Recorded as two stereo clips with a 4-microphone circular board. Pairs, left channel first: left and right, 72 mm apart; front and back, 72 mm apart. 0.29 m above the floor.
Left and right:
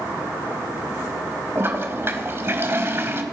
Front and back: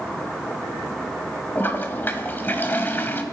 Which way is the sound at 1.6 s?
50° right.